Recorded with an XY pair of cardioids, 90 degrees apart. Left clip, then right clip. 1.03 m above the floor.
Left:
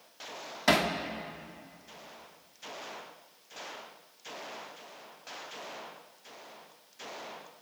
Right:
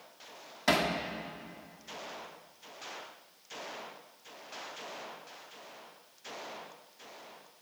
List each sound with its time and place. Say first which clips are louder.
0.7 s hammering: left 2 dB; 15° left, 1.4 m